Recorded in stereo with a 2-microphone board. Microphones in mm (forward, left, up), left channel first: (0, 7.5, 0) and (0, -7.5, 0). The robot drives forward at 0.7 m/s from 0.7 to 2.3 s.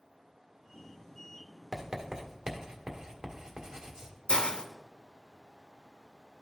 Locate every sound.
1.7 s writing: 50° right (ahead or behind), 1.2 m; by 4.1 s 40° right (ahead or behind), 1.5 m
4.3 s a hiss: 70° left (ahead or behind), 0.7 m